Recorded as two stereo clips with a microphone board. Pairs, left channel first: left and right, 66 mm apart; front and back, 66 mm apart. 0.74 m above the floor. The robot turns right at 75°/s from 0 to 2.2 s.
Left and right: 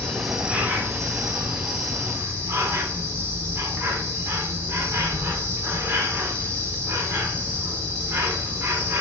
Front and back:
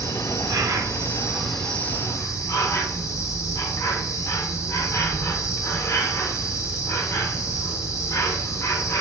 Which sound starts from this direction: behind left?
An insect, at 0.0 s.